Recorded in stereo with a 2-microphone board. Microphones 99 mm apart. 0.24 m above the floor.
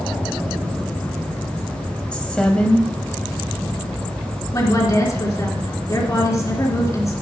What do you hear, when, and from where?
2.1 s a woman speaking: 10° left (ahead or behind), 1.1 m
4.5 s a woman speaking: 35° left (ahead or behind), 3 m